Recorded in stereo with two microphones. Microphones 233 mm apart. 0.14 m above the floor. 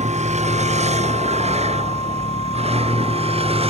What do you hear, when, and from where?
0.0 s a vehicle: 30° right (ahead or behind); by 3.7 s 25° right (ahead or behind)